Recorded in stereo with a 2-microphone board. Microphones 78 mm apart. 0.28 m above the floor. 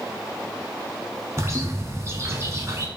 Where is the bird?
40° right (ahead or behind), 0.9 m.